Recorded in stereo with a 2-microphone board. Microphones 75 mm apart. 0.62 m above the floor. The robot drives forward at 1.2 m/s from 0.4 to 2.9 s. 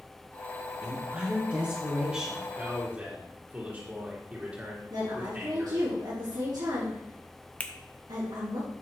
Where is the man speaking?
25° right (ahead or behind), 1.5 m; by 5.9 s 20° right (ahead or behind), 1.8 m.